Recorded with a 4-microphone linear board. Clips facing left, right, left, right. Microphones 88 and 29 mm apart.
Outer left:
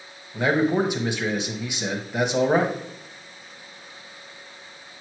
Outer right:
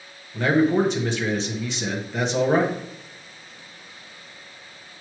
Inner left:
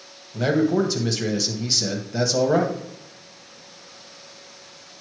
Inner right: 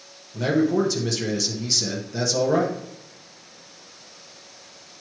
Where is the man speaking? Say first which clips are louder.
Outer right 2 dB, inner left 1 dB; 10° left (ahead or behind), 1.1 m.